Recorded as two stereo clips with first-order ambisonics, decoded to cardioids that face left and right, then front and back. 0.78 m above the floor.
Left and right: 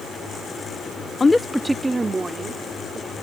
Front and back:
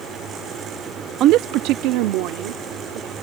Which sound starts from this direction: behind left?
A woman speaking, at 1.2 s.